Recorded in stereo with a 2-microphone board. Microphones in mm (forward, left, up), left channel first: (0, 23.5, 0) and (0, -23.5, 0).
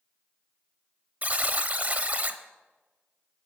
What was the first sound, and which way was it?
A buzzer, 35° right (ahead or behind).